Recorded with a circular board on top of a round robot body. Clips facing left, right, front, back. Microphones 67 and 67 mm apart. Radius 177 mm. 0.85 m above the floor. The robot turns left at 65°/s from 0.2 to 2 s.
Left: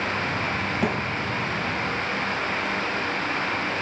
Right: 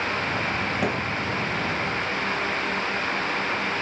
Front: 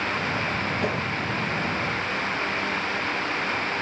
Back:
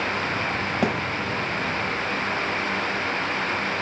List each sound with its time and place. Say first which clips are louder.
0.8 s a thud: left 2 dB, back 5 dB; 170° right, 2.5 m; by 1.0 s 175° left, 2.5 m